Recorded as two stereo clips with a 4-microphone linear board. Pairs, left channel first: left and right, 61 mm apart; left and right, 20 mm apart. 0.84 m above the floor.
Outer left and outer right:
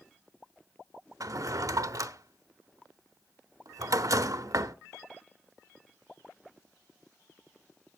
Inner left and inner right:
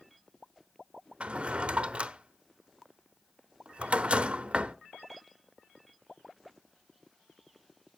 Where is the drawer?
70° right (ahead or behind), 0.7 m.